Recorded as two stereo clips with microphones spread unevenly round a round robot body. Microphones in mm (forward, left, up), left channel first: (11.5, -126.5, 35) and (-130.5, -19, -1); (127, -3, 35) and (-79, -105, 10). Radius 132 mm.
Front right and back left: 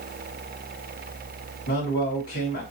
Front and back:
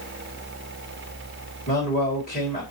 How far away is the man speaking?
About 2.5 m.